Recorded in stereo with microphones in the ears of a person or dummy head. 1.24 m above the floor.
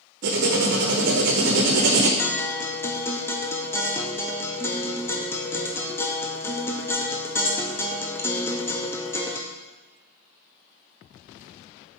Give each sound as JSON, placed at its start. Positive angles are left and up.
{"t": 0.2, "sound": "writing", "side_deg": -60, "distance_m": 0.8}
{"t": 2.2, "sound": "a guitar", "side_deg": 10, "distance_m": 0.5}